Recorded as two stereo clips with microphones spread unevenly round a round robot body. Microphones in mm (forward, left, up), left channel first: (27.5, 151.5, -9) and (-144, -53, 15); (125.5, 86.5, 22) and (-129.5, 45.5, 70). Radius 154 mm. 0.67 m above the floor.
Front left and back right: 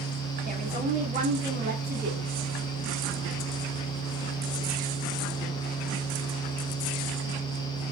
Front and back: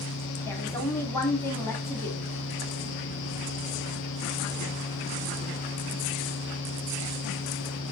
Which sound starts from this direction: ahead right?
A woman speaking, at 0.5 s.